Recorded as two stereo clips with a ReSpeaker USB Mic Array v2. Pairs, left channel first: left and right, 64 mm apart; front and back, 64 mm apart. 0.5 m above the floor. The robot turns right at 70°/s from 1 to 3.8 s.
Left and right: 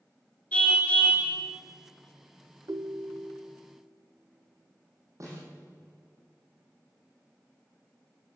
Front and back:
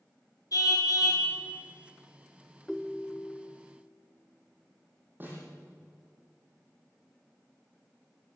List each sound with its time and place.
0.5 s a car horn: 20° left, 4 m; by 1.2 s 35° left, 4 m
2.7 s a ringtone: 90° right, 0.6 m; by 3.6 s 30° right, 0.6 m
5.2 s a snare drum: 125° right, 7.5 m